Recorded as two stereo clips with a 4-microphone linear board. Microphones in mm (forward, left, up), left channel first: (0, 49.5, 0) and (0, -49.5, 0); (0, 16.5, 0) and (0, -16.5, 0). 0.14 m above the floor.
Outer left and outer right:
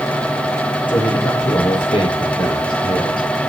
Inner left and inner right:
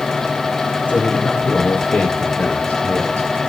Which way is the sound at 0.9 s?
50° left (ahead or behind).